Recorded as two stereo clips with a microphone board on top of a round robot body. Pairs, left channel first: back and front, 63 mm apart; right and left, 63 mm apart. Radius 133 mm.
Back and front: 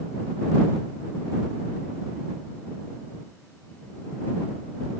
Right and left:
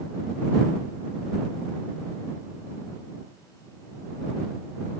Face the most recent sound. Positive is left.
No sound to turn to.